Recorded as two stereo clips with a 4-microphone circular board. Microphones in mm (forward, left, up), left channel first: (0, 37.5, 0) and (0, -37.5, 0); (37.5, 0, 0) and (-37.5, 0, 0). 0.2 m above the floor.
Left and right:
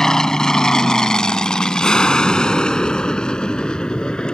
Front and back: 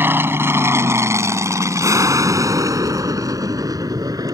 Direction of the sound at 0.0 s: 170° left.